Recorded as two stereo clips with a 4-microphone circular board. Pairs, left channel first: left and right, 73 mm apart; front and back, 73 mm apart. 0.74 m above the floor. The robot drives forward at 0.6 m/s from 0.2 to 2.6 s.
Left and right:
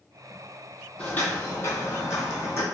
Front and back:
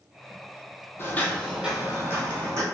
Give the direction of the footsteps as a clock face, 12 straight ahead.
11 o'clock.